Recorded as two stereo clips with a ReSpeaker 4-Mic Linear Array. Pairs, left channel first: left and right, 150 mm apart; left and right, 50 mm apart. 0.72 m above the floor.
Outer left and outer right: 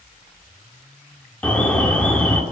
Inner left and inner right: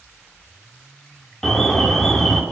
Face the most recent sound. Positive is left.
turn(degrees=10)  # may be behind; listen again after turning